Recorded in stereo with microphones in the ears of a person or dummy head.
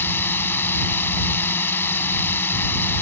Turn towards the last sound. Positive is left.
turn(degrees=10)  # may be behind; listen again after turning